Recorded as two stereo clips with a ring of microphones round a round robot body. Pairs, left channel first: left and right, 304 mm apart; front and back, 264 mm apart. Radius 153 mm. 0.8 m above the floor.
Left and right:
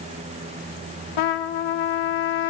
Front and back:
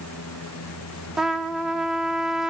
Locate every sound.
1.2 s a trumpet: 90° left, 0.7 m